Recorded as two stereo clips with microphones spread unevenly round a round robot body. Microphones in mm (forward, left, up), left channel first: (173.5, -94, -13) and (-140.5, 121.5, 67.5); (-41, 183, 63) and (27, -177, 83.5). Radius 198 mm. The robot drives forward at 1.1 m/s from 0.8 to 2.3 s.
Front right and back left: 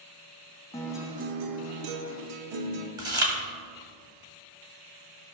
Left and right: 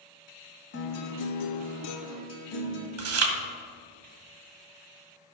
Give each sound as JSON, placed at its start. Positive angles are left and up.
{"t": 0.7, "sound": "a guitar", "azimuth_deg": 45, "distance_m": 1.0}
{"t": 3.0, "sound": "chewing", "azimuth_deg": -130, "distance_m": 1.4}